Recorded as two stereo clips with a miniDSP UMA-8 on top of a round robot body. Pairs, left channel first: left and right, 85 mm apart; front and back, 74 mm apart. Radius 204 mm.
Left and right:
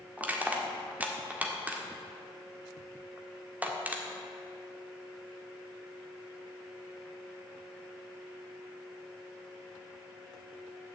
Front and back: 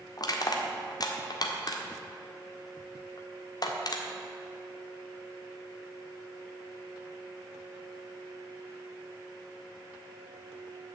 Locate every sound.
0.2 s crushing: 20° right, 1.7 m